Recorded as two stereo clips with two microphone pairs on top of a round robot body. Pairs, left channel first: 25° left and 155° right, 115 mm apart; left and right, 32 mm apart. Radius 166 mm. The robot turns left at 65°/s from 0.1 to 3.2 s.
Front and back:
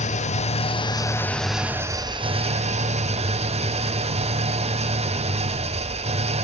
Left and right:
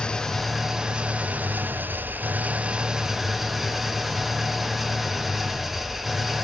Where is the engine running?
25° left, 1.7 m; by 6.4 s 175° right, 1.7 m.